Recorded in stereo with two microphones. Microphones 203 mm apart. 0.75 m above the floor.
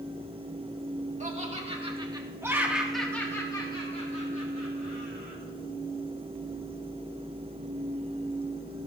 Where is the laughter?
35° right (ahead or behind), 1.5 m; by 5.4 s 50° left (ahead or behind), 1.7 m.